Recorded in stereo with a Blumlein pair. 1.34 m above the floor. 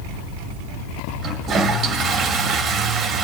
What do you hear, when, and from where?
1.2 s a toilet flushing: 20° right, 1.6 m